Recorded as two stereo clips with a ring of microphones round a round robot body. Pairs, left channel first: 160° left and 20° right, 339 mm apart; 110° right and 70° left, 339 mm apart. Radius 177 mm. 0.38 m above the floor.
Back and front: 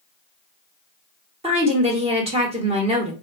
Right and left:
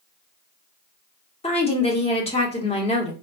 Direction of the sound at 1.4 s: 65° right.